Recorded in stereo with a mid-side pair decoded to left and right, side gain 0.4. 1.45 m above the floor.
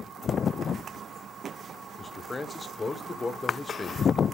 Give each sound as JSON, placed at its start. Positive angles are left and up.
{"t": 2.0, "sound": "a man speaking", "azimuth_deg": 30, "distance_m": 0.9}